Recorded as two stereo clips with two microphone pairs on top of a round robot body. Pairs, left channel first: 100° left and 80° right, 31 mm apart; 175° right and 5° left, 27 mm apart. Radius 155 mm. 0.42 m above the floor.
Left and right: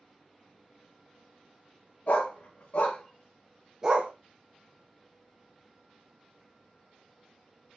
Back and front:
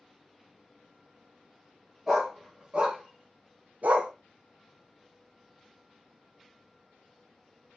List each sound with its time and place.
2.1 s a dog barking: 75° left, 1.2 m; by 4.1 s 35° right, 0.7 m